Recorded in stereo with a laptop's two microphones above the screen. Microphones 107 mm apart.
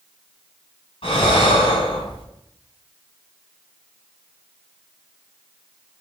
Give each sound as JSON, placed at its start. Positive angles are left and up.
{"t": 1.0, "sound": "breathing", "side_deg": 60, "distance_m": 4.5}